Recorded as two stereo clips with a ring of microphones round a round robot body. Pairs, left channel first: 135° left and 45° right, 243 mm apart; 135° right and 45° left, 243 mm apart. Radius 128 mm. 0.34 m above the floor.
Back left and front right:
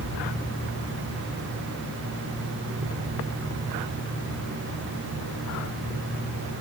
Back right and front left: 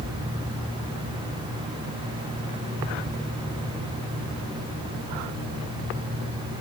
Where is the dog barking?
I don't hear a dog barking.